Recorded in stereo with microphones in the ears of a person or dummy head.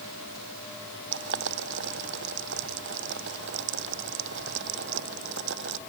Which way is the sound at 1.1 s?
65° right (ahead or behind).